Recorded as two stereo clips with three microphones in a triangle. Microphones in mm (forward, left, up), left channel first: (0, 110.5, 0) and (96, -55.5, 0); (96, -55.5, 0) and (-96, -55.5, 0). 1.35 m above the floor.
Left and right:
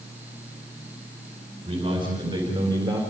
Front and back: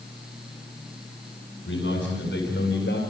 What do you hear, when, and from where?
1.6 s a man speaking: 5° left, 5.5 m; by 3.0 s 10° left, 4 m